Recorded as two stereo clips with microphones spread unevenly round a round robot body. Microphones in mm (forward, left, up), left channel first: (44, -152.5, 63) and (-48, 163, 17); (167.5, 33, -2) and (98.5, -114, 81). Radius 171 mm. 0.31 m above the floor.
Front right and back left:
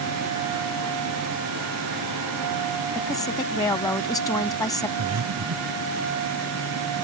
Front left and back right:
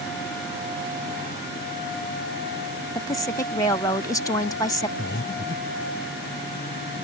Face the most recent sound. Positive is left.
turn(degrees=90)